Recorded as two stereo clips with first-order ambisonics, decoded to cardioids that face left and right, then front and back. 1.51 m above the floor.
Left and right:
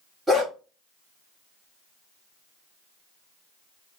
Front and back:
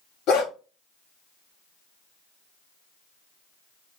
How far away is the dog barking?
About 1.7 m.